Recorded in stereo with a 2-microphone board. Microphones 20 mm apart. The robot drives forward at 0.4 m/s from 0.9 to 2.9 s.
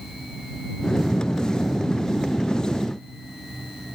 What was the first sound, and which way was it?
Only background noise.